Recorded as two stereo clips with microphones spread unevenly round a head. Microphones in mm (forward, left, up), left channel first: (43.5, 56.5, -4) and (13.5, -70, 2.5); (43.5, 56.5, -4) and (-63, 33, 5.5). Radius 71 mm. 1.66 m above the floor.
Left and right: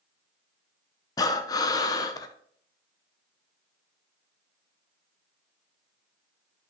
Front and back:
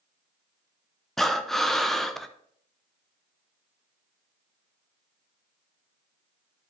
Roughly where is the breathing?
Left.